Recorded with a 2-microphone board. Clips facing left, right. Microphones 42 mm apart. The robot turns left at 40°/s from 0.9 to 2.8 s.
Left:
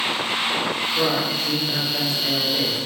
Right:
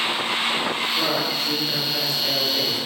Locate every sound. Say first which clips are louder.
0.9 s a man speaking: left 1 dB; 20° left (ahead or behind), 1.2 m; by 2.8 s 15° left (ahead or behind), 1.2 m